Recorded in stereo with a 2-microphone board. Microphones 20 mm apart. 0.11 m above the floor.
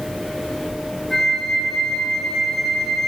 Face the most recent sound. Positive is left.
turn(degrees=5)  # may be behind; listen again after turning